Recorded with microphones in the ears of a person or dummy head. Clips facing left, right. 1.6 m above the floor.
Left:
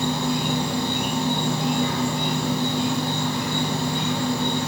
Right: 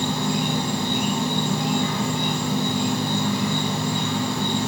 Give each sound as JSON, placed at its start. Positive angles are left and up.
{"t": 0.0, "sound": "an insect", "side_deg": -60, "distance_m": 1.1}